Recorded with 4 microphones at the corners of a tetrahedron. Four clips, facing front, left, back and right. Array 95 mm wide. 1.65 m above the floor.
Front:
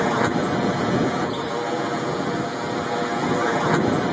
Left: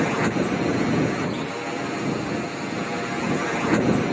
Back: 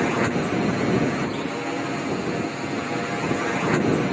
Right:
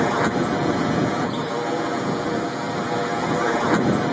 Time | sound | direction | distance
0.0 | a drone | 45° right | ?